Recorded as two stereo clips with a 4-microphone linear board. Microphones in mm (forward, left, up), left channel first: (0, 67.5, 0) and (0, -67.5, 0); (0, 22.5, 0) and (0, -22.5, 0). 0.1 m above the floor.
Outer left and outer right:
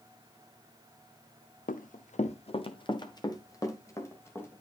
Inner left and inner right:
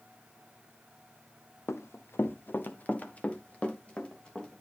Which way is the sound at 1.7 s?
85° left.